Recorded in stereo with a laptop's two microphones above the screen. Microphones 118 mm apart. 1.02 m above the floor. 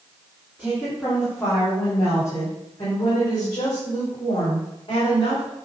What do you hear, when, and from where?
0.6 s a woman speaking: 5° left (ahead or behind), 2.5 m; by 5.5 s 45° left (ahead or behind), 5.5 m